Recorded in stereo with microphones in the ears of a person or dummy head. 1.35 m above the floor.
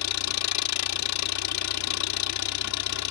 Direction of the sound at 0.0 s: 85° left.